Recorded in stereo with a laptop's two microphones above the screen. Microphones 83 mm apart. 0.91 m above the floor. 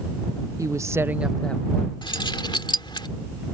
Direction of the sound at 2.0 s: 70° left (ahead or behind).